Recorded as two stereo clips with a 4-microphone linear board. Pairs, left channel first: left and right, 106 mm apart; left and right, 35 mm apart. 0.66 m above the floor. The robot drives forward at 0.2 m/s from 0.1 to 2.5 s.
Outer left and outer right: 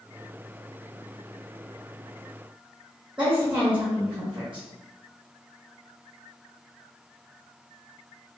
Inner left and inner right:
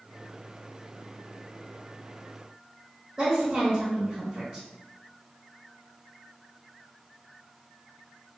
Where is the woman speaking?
10° right (ahead or behind), 1.0 m.